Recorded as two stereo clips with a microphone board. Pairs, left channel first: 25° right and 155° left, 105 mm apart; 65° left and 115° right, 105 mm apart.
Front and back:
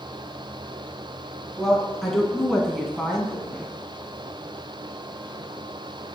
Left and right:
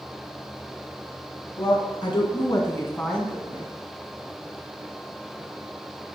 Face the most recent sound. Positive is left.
turn(degrees=-105)